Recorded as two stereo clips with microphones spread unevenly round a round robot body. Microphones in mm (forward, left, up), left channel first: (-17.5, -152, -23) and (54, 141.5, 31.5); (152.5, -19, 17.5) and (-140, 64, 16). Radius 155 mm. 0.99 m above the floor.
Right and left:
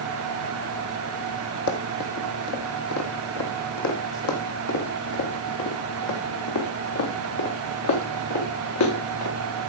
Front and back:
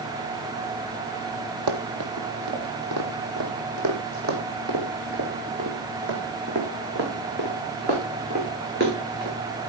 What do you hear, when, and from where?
1.7 s running footsteps: 160° right, 2 m; by 9.3 s 135° right, 6 m